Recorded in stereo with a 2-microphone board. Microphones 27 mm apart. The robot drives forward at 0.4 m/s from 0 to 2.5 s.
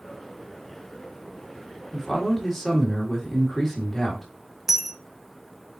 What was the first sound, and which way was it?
A man speaking, 15° left (ahead or behind).